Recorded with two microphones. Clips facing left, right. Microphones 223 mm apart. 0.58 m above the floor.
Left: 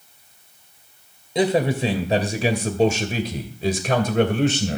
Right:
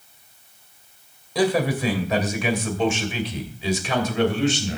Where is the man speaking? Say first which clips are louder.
Left 1 dB; 20° left (ahead or behind), 2.5 m; by 4.8 s 60° left (ahead or behind), 3 m.